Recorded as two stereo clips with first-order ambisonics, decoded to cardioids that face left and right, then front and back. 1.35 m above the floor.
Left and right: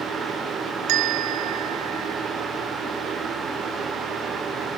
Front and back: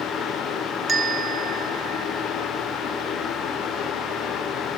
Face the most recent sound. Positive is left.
turn(degrees=-110)